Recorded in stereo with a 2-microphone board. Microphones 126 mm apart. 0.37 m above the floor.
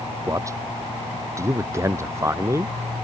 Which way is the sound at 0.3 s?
25° right (ahead or behind).